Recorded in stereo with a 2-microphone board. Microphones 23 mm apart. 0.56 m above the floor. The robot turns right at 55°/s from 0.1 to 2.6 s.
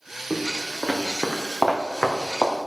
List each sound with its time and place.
0.3 s footsteps: centre (ahead or behind), 2.5 m; by 2.6 s 75° left (ahead or behind), 2.5 m